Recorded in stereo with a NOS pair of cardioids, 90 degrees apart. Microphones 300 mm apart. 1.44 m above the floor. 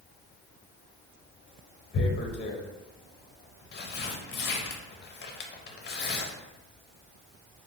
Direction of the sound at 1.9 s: 35° left.